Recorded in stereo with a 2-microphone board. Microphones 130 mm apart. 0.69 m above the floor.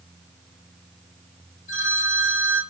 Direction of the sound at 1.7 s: 70° left (ahead or behind).